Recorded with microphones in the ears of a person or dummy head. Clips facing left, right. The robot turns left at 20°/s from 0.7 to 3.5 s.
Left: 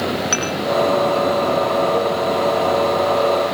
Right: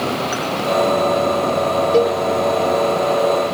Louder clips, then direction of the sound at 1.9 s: Right 4 dB; 50° right (ahead or behind).